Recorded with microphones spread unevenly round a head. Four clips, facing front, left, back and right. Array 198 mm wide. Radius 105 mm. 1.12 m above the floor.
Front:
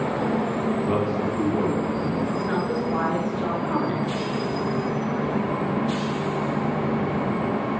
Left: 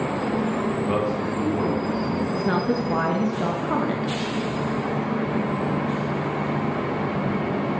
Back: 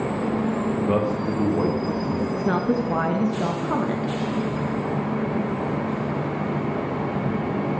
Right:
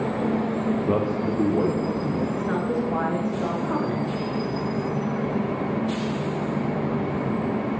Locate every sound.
0.9 s a man speaking: 120° right, 0.9 m; by 2.2 s 125° right, 1.5 m
2.3 s a woman speaking: 130° left, 0.9 m